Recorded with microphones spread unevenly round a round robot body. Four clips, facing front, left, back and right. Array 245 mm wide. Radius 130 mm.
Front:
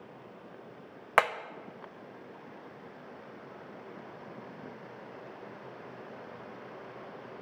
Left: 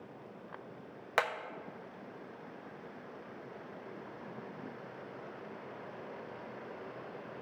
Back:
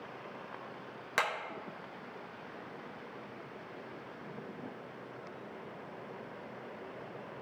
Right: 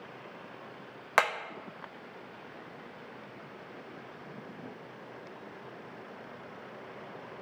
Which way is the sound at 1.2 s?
20° right.